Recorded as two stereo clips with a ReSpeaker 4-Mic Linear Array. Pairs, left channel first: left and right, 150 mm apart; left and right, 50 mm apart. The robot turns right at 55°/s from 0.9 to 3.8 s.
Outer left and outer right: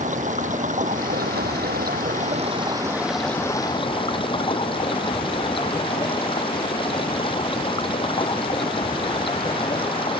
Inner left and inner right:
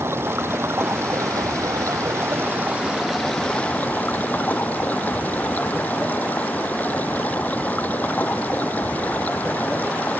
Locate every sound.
0.0 s running water: 125° right; by 10.2 s 35° left